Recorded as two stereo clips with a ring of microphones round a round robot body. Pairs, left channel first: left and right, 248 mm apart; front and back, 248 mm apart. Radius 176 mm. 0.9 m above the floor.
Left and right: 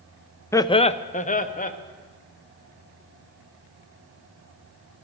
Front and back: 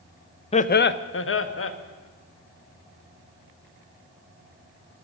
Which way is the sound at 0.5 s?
25° left.